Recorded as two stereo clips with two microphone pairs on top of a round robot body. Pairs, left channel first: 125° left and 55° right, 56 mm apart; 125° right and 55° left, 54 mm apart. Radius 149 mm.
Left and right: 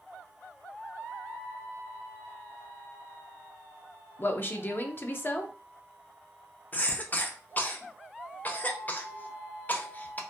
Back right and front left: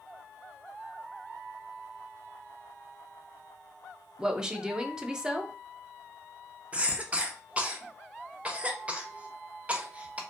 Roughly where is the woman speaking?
Behind left.